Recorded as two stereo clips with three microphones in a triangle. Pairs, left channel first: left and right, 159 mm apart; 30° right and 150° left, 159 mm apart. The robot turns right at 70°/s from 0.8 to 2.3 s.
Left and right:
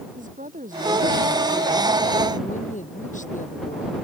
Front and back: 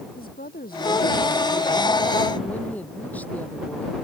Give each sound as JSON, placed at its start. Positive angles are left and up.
{"t": 0.1, "sound": "a woman speaking", "azimuth_deg": -55}